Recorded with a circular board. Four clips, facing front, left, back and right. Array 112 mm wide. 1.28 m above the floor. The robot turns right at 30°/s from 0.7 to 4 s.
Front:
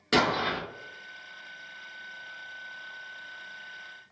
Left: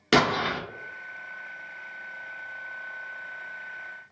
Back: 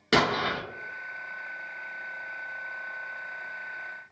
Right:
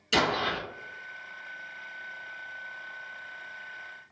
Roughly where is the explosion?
Left.